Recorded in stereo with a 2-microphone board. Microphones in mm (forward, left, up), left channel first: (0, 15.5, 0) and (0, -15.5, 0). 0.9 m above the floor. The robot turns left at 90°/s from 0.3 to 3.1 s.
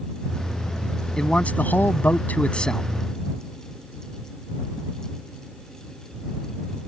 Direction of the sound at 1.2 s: 165° left.